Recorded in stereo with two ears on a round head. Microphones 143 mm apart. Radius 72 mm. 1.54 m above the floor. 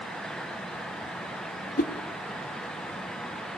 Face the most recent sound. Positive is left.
turn(degrees=55)  # may be behind; listen again after turning